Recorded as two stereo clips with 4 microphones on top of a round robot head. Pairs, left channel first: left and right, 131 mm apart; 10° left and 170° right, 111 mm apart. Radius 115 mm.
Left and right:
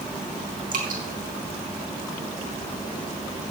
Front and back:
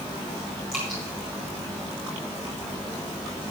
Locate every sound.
0.7 s dripping: 80° right, 3.5 m